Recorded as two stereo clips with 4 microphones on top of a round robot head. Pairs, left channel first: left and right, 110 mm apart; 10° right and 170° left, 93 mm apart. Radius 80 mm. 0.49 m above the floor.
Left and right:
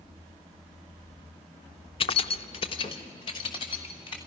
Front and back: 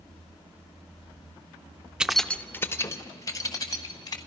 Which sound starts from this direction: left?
Keys jangling, at 2.0 s.